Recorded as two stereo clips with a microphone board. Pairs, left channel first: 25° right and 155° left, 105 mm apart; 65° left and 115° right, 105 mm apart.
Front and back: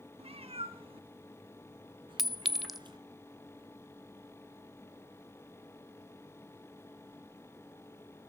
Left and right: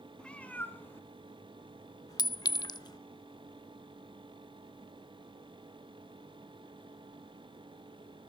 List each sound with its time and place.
0.2 s a cat meowing: 150° left, 1.8 m; by 3.0 s 115° left, 3 m
2.2 s a clink: 70° left, 0.6 m